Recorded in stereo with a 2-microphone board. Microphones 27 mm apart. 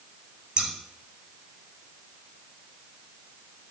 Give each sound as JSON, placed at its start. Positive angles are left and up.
{"t": 0.6, "sound": "scissors", "side_deg": -30, "distance_m": 0.9}